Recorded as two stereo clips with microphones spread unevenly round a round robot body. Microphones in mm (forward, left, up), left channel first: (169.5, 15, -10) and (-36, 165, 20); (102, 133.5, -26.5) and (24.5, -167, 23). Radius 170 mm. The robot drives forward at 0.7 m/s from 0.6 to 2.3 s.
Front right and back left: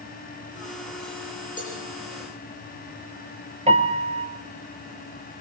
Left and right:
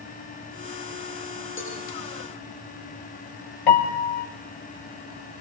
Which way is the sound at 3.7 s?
80° left.